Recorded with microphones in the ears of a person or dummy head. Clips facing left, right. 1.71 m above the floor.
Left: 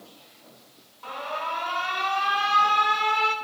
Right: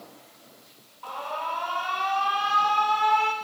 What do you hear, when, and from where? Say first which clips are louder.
1.0 s an alarm: even; 25° left (ahead or behind), 1.1 m